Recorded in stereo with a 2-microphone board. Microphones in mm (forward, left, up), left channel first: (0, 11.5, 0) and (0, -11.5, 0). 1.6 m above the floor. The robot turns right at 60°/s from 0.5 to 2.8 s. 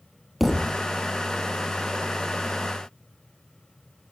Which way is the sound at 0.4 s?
5° right (ahead or behind).